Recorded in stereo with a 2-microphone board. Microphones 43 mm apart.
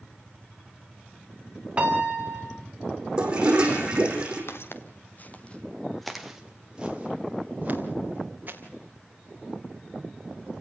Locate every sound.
1.8 s a piano: 30° right (ahead or behind), 4.5 m
3.2 s a toilet flushing: 20° right (ahead or behind), 5 m
4.5 s footsteps: 65° left (ahead or behind), 2.5 m; by 8.6 s 40° right (ahead or behind), 5.5 m